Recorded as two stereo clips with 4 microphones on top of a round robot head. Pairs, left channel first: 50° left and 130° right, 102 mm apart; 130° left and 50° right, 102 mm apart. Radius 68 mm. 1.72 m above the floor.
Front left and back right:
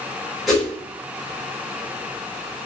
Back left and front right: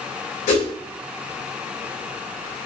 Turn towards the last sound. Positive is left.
turn(degrees=140)